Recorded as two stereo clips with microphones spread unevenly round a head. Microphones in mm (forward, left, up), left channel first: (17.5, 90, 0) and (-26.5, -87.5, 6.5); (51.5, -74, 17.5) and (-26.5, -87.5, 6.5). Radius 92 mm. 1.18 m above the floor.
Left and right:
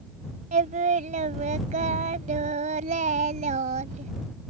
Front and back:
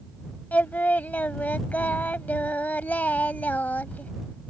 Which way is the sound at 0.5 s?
55° right.